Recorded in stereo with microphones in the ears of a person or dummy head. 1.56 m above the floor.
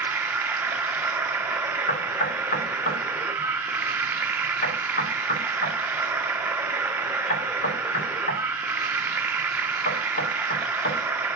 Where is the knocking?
45° left (ahead or behind), 4.5 m.